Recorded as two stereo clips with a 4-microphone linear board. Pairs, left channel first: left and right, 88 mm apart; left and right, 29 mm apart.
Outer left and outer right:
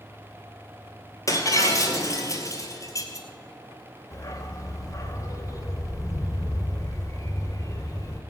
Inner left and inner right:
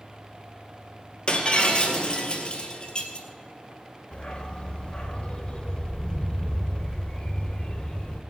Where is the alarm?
I don't hear an alarm.